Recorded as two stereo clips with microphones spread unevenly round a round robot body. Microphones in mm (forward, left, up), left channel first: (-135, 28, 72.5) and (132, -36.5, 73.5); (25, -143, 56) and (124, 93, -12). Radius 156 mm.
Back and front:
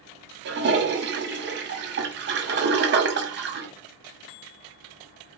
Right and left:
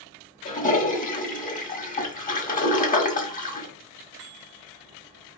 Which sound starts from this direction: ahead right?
A toilet flushing, at 0.5 s.